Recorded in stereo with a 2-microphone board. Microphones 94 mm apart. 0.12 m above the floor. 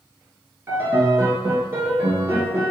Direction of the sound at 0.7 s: 30° right (ahead or behind).